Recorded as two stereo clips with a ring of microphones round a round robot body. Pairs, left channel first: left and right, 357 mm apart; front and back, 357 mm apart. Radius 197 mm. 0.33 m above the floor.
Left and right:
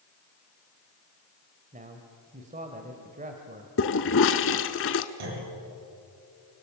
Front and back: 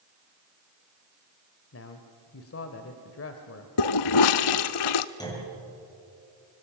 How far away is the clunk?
About 6.5 m.